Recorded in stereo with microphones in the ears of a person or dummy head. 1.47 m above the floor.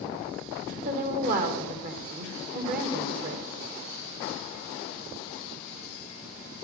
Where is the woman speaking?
50° right (ahead or behind), 1.9 m.